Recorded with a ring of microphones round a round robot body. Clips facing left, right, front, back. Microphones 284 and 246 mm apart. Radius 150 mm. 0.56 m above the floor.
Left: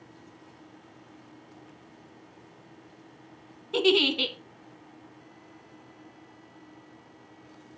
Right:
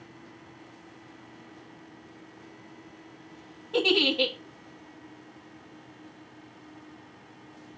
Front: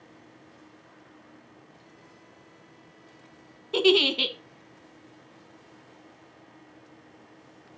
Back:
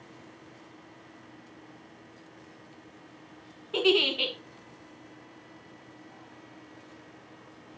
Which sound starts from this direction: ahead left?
A giggle, at 3.7 s.